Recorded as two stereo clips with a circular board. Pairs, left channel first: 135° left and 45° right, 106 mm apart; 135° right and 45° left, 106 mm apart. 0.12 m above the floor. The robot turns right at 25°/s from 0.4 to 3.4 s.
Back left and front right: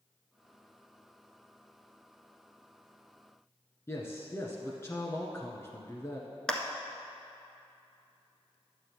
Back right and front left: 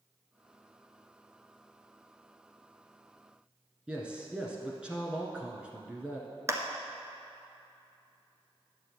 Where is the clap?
60° left, 1.0 m.